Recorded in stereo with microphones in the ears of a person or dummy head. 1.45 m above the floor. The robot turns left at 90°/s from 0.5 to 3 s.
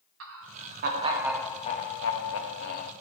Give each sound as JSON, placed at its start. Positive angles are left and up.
{"t": 0.2, "sound": "laughter", "azimuth_deg": -105, "distance_m": 1.6}